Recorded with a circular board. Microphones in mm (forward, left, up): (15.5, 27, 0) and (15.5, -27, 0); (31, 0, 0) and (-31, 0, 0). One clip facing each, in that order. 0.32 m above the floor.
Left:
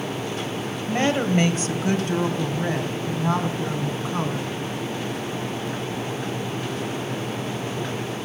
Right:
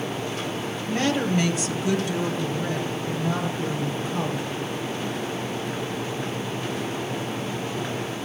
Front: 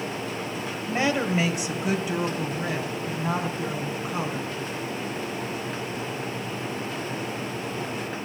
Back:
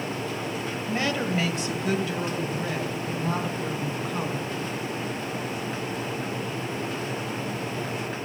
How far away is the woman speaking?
About 1.5 m.